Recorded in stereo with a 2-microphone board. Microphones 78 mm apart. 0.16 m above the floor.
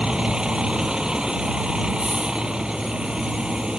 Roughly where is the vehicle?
Centre.